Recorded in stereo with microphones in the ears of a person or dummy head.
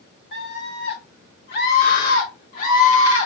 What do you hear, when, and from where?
0.3 s a scream: 65° left (ahead or behind), 3.5 m; by 3.3 s 30° left (ahead or behind), 2.0 m